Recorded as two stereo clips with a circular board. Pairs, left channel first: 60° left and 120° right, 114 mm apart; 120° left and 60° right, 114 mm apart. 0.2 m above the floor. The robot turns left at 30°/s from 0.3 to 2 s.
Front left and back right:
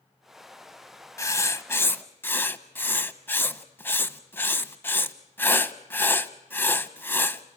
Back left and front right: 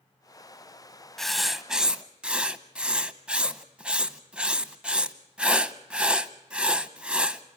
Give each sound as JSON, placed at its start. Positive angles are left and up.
{"t": 1.2, "sound": "writing", "azimuth_deg": 35, "distance_m": 0.6}